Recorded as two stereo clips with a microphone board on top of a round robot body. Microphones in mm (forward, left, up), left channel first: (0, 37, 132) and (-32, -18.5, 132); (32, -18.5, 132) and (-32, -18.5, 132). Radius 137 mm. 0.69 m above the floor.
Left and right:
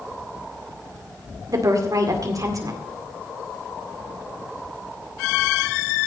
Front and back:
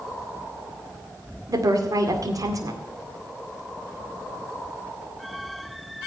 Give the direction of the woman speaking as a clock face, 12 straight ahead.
5 o'clock.